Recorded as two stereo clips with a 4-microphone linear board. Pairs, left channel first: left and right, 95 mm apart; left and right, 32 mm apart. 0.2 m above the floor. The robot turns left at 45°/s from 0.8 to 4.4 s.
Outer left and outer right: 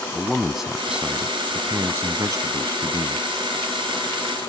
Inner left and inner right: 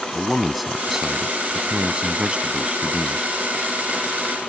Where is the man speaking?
10° right; by 3.3 s 120° right.